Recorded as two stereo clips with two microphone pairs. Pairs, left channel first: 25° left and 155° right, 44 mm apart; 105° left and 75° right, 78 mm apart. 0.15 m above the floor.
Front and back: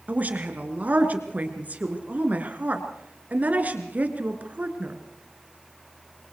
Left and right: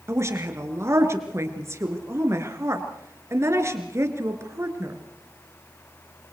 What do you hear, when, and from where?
0.1 s a woman speaking: 115° right, 2.5 m